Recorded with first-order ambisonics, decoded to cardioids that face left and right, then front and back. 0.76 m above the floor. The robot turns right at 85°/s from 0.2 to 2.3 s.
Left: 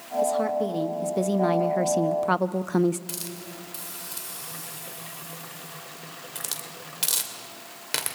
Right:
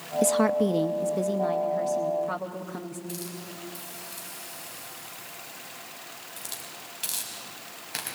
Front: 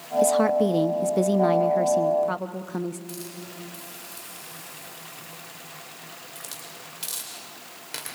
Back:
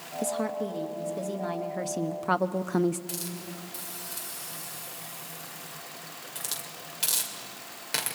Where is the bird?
No bird in this recording.